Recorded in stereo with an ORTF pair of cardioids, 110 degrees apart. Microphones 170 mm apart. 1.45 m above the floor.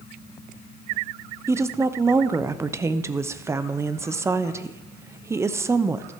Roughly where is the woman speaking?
Ahead.